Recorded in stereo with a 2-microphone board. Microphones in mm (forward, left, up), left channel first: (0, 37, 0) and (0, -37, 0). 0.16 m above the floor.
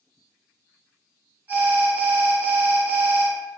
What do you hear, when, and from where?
1.5 s an alarm: 20° right (ahead or behind), 1.3 m